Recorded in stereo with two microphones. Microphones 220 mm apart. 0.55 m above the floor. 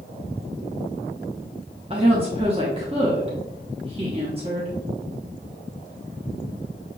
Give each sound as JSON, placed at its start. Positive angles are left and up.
{"t": 1.9, "sound": "a woman speaking", "side_deg": -30, "distance_m": 0.8}